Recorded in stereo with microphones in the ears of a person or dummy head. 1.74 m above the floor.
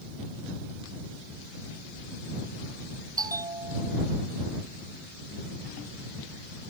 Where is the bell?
20° right (ahead or behind).